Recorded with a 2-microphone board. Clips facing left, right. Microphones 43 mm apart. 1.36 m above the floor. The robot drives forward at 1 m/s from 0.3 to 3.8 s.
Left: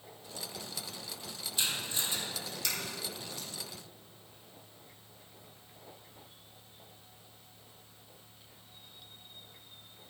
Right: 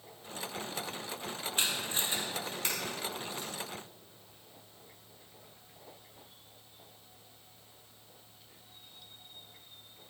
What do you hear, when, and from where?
1.6 s tape being pulled: 45° right (ahead or behind), 2.5 m; by 3.5 s 25° right (ahead or behind), 4 m